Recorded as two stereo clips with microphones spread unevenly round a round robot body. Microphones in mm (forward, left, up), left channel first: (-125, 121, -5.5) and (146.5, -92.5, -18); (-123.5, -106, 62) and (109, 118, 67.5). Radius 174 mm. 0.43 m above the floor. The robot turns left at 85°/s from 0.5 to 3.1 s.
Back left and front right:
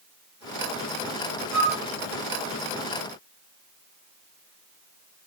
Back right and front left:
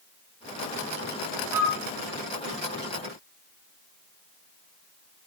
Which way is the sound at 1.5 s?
75° left.